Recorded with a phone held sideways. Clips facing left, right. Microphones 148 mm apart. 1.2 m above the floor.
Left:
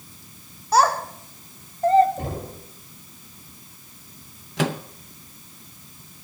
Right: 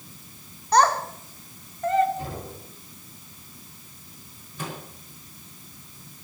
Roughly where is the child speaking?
Centre.